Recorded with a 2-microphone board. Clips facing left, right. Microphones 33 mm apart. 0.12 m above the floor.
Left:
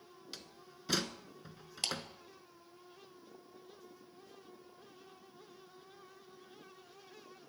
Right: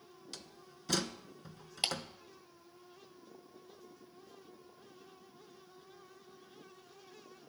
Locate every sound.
0.3 s a door slam: 10° left (ahead or behind), 0.9 m
1.8 s a clap: 25° right (ahead or behind), 1.8 m